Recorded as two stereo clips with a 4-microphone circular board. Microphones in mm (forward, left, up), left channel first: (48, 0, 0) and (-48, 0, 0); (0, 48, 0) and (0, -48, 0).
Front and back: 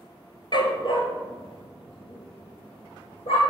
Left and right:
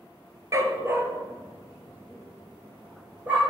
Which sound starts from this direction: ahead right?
A dog barking, at 0.5 s.